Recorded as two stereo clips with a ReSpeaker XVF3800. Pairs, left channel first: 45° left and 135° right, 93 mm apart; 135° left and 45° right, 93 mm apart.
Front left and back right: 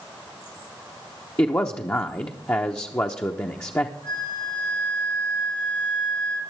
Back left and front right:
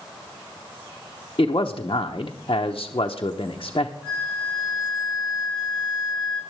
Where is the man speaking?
105° left, 0.8 m.